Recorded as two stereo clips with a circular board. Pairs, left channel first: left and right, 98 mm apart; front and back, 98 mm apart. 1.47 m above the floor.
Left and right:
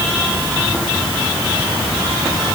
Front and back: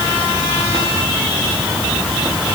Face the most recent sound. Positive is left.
No sound to turn to.